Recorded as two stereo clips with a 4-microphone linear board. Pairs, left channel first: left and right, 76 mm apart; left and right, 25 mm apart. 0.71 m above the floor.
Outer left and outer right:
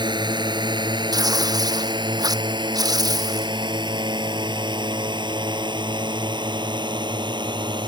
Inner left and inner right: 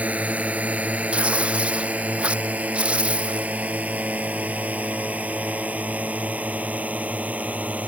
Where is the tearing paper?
55° right (ahead or behind).